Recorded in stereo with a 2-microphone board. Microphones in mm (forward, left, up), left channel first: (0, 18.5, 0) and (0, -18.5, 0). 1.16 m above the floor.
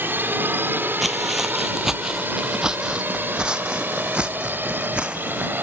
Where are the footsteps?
Centre (ahead or behind); by 5.5 s 30° right (ahead or behind).